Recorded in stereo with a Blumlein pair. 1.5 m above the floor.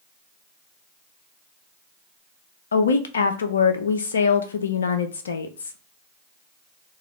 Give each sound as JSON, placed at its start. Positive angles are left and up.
{"t": 2.7, "sound": "a woman speaking", "azimuth_deg": 70, "distance_m": 0.6}